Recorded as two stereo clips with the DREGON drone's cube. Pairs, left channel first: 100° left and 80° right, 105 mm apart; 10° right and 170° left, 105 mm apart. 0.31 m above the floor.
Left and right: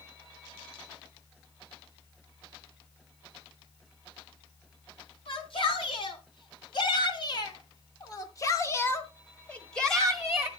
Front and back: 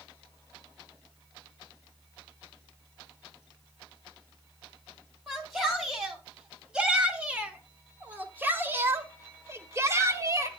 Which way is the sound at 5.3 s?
80° left.